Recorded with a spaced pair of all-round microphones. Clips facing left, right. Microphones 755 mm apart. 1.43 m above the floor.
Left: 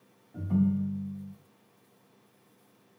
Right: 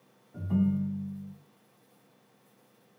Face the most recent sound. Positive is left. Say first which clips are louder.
# left 1 dB
turn(degrees=-5)  # may be behind; listen again after turning